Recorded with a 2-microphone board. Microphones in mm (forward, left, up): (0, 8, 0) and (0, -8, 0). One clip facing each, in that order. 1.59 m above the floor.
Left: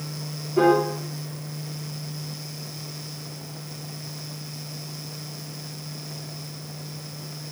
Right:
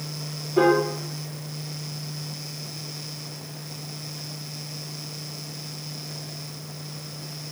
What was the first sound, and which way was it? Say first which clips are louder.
A piano: even; 55° right (ahead or behind).